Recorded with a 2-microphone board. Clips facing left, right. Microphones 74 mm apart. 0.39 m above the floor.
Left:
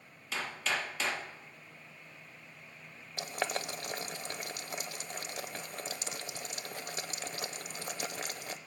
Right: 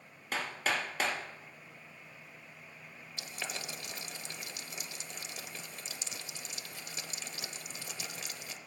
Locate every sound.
0.3 s hammering: 50° right (ahead or behind), 3 m
3.2 s boiling: 50° left (ahead or behind), 0.7 m